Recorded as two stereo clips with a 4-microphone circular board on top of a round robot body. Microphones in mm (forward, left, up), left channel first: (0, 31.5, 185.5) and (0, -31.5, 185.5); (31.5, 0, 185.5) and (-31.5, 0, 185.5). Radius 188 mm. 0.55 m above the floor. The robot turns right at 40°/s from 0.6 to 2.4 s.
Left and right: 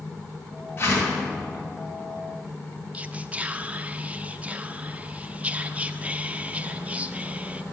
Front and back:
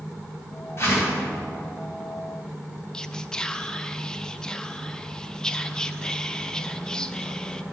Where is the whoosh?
40° left, 2.5 m; by 1.2 s 55° left, 2.5 m.